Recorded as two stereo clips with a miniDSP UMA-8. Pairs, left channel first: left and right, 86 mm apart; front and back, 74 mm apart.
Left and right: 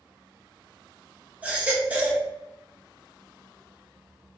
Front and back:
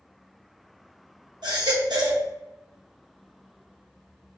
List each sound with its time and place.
1.4 s a baby crying: 165° right, 1.1 m